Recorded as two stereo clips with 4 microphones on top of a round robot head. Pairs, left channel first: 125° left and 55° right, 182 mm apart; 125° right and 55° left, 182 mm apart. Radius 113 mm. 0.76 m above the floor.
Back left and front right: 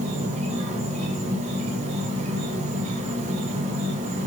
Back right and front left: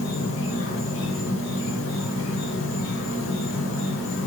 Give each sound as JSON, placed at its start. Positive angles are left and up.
{"t": 0.0, "sound": "an insect", "azimuth_deg": -110, "distance_m": 0.8}